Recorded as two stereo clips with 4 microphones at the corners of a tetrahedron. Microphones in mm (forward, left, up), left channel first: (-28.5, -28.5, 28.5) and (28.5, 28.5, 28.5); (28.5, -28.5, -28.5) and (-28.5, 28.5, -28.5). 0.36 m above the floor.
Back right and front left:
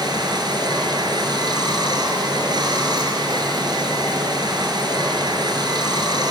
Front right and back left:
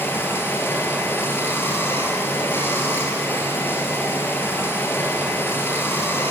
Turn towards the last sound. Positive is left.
turn(degrees=20)